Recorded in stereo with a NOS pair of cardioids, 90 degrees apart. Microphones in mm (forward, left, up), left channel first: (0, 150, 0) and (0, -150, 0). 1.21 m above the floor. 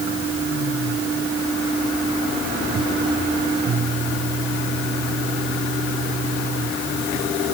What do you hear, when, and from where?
Only background noise.